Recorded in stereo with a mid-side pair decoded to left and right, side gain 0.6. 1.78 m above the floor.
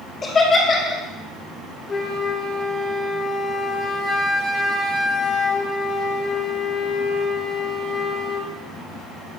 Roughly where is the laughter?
Ahead left.